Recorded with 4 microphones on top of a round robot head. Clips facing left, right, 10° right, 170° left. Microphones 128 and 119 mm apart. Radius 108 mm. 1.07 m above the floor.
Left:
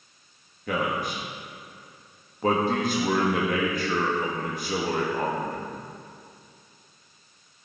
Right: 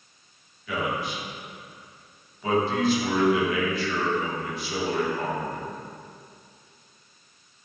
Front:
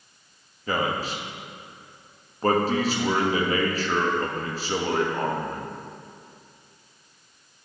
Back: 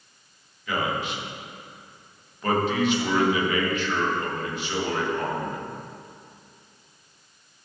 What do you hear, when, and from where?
0.7 s a man speaking: 45° left, 1.8 m